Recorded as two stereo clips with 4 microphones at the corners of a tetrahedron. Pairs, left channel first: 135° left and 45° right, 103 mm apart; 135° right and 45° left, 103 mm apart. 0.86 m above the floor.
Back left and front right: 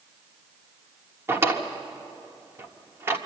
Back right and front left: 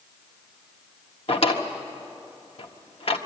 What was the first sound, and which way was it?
A drawer, 110° right.